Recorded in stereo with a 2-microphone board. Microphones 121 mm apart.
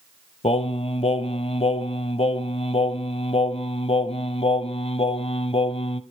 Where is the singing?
55° left (ahead or behind), 0.7 m.